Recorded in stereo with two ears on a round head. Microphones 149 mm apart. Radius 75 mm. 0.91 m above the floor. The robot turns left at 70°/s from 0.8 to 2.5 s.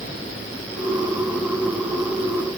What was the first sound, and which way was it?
Only background noise.